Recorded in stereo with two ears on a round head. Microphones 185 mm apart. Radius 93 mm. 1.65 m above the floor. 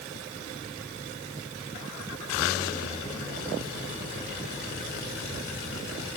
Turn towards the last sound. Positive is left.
No sound to turn to.